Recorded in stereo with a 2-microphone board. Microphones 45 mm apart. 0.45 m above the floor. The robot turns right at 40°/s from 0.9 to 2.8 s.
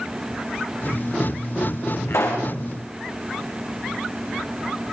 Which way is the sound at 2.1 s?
85° left.